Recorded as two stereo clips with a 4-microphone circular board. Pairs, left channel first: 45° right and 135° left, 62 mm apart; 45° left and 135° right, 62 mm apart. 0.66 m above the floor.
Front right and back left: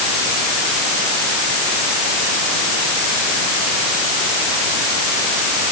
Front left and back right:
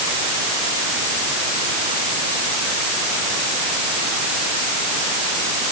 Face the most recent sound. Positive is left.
No sound to turn to.